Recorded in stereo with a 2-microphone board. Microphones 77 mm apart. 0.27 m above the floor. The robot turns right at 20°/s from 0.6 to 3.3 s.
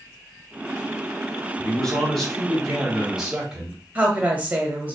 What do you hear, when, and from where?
1.6 s a man speaking: 160° left, 1.7 m; by 3.8 s 165° right, 1.7 m
4.0 s a woman speaking: 20° right (ahead or behind), 1.0 m